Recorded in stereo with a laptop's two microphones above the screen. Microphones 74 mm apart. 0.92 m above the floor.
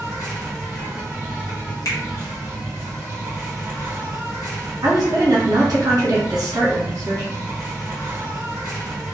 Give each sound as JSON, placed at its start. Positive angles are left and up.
{"t": 0.0, "sound": "an insect", "side_deg": 55, "distance_m": 1.5}
{"t": 1.9, "sound": "a finger snap", "side_deg": 50, "distance_m": 1.2}
{"t": 4.8, "sound": "a woman speaking", "side_deg": -60, "distance_m": 0.8}